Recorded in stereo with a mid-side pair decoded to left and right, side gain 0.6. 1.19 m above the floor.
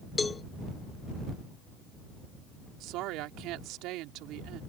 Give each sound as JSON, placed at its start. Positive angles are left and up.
{"t": 0.2, "sound": "a cowbell", "azimuth_deg": 25}
{"t": 2.8, "sound": "a woman speaking", "azimuth_deg": -70}